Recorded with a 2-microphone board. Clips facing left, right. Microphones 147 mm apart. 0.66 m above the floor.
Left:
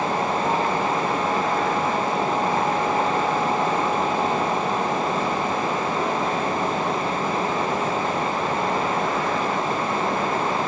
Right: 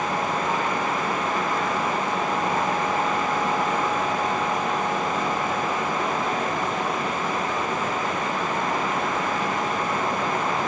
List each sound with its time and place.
Only background noise.